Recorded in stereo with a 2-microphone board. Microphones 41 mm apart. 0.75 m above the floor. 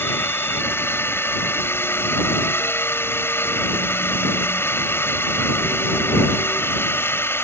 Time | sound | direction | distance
0.0 | a drone | 70° left (ahead or behind) | ?